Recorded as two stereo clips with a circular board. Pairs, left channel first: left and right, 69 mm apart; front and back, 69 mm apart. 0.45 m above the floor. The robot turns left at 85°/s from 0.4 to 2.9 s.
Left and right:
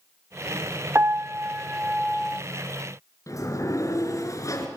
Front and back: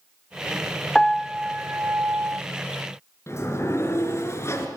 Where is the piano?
75° right, 0.6 m; by 2.4 s 160° left, 0.6 m.